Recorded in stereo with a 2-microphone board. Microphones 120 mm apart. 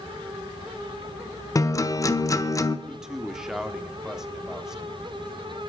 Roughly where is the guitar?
Left.